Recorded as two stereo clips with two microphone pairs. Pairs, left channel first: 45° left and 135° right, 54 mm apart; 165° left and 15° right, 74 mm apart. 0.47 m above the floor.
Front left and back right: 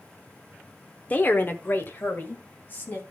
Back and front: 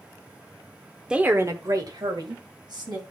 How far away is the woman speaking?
About 0.8 m.